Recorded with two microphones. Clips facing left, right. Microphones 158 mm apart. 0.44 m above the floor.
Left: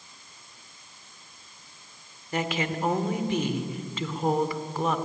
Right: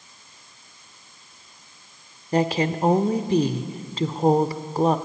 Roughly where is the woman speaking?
Right.